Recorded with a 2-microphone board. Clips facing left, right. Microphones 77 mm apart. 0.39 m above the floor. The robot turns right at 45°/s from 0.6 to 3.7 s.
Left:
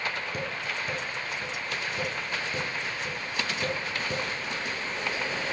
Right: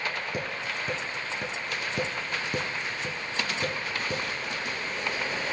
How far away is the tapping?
About 1.7 m.